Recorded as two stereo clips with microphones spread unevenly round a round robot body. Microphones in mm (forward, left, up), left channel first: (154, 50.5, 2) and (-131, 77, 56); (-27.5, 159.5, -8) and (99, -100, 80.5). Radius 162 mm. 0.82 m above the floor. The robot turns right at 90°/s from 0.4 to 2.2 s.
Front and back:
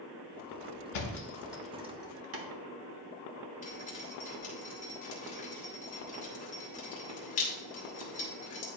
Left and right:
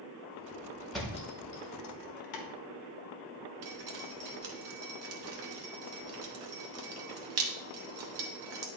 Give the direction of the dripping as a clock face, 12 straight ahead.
2 o'clock.